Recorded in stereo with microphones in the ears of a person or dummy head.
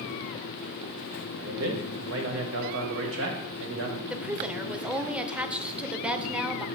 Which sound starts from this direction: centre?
A woman speaking, at 4.1 s.